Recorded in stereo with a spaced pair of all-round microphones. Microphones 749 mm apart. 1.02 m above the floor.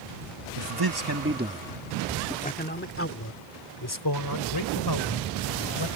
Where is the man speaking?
40° right (ahead or behind); by 5.9 s 35° left (ahead or behind).